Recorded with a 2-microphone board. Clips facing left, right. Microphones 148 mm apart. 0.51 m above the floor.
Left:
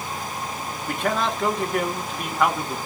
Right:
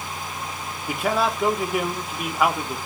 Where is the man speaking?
5° right (ahead or behind), 0.6 m.